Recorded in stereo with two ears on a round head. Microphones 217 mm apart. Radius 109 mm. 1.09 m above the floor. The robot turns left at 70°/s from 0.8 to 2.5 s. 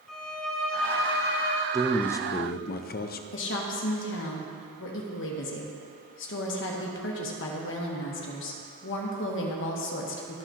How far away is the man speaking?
About 0.5 m.